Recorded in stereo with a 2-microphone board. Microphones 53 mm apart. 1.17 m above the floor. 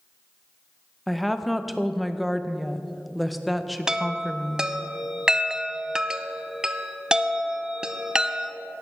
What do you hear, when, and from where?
1.1 s a woman speaking: centre (ahead or behind), 0.6 m
3.9 s a chime: 15° right (ahead or behind), 0.5 m